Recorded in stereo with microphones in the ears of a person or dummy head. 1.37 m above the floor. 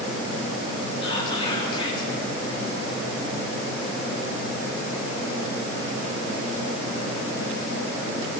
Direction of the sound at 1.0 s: 25° left (ahead or behind).